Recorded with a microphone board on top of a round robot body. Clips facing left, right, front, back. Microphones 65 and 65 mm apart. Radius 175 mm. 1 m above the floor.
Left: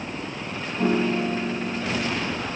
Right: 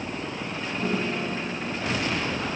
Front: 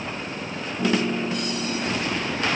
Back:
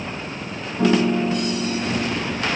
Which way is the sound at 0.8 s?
145° left.